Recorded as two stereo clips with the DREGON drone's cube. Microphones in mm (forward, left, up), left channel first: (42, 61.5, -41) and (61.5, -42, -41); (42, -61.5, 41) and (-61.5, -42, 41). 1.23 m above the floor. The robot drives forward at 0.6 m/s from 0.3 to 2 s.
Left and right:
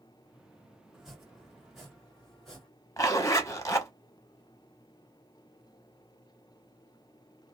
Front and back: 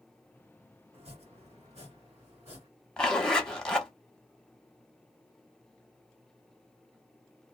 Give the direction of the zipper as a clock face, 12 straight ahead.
10 o'clock.